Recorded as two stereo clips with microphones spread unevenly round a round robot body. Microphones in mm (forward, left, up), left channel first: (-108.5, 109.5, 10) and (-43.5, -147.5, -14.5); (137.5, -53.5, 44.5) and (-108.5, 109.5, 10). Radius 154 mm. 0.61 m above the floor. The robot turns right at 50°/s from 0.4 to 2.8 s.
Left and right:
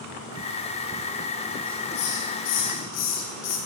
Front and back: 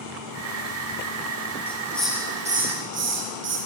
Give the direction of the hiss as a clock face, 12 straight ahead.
11 o'clock.